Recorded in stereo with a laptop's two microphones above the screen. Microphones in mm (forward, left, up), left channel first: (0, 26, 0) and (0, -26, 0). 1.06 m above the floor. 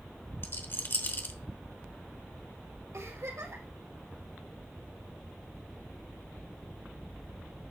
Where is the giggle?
80° right, 5 m.